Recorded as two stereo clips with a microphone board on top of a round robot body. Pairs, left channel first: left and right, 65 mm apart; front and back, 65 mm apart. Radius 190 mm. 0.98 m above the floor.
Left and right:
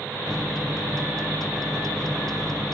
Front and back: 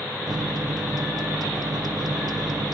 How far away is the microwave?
About 0.8 m.